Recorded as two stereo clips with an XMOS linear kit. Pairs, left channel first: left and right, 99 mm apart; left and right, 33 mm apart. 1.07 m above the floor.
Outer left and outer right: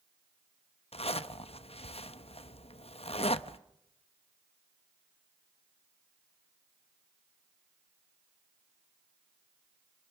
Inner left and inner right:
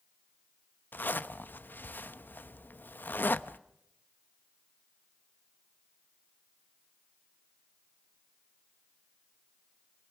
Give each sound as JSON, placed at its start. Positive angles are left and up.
{"t": 0.9, "sound": "a zipper", "side_deg": 80, "distance_m": 0.9}